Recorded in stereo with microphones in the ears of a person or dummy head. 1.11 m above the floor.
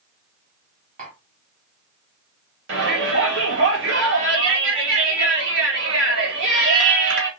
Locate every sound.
1.0 s tapping: 35° right (ahead or behind), 2 m
2.7 s a shout: 55° right (ahead or behind), 2.0 m